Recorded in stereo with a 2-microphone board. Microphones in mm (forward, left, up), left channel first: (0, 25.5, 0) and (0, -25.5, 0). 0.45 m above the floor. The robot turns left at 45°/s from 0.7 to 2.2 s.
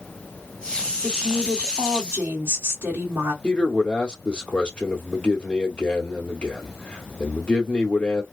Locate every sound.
1.0 s a woman speaking: 60° right, 2 m; by 3.3 s 110° right, 2 m
3.4 s a man speaking: 20° left (ahead or behind), 0.8 m